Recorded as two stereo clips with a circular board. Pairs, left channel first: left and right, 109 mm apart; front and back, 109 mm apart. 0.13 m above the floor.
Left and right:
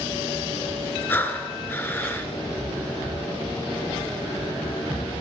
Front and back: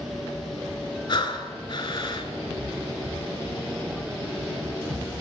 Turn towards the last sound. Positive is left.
turn(degrees=25)